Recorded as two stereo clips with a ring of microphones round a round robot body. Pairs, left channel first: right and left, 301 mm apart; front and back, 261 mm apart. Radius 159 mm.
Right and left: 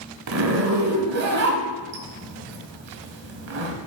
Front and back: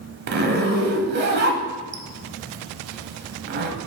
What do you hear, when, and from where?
0.3 s a zipper: 130° left, 1.0 m